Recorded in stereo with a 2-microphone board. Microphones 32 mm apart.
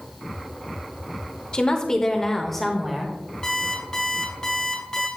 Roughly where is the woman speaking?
Left.